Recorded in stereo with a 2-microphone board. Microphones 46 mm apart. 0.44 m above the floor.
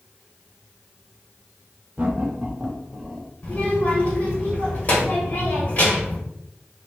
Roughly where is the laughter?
Right.